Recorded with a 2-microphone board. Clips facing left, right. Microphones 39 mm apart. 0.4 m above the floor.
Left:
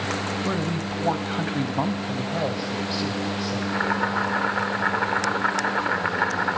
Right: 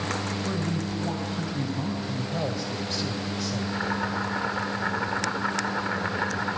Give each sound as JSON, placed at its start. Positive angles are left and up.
{"t": 0.4, "sound": "a woman speaking", "side_deg": 35, "distance_m": 1.8}
{"t": 2.1, "sound": "a man speaking", "side_deg": 20, "distance_m": 1.6}
{"t": 3.6, "sound": "boiling", "side_deg": 25, "distance_m": 1.4}